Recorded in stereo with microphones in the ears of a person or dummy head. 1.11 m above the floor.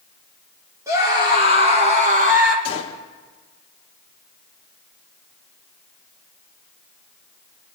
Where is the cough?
No cough in this recording.